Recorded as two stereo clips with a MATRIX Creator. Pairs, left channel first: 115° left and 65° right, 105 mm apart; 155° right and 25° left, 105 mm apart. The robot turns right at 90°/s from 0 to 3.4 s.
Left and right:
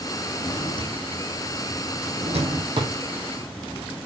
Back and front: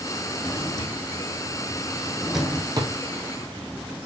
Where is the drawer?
120° left, 2.5 m; by 2.9 s 15° right, 2.5 m.